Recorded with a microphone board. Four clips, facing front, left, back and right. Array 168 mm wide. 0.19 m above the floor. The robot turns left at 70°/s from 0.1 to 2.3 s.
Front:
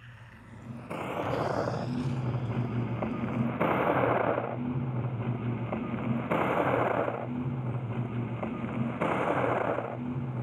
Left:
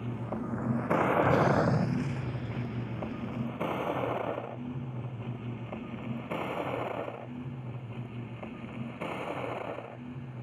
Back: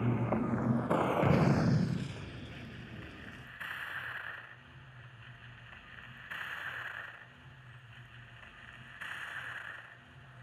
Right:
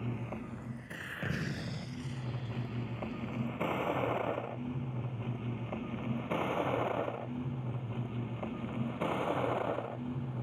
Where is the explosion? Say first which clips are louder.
Left 14 dB, back 1 dB; 165° left; by 3.5 s 90° left.